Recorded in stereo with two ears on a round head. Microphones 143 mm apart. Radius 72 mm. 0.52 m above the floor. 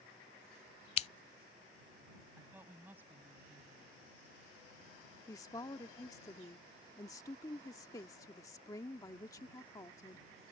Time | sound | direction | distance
1.0 | scissors | 40° left (ahead or behind) | ?
2.4 | a woman speaking | 15° right (ahead or behind) | ?
5.3 | a woman speaking | 20° left (ahead or behind) | ?